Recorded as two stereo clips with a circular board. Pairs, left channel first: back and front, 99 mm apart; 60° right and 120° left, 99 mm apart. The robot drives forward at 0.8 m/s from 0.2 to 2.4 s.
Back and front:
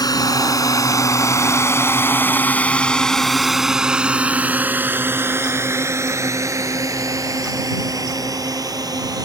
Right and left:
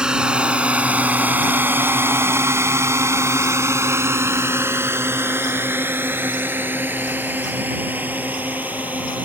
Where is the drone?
165° right; by 9.2 s 45° left.